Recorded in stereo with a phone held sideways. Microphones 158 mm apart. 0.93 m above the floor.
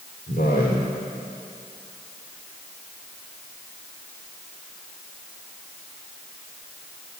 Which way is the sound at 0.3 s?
75° left (ahead or behind).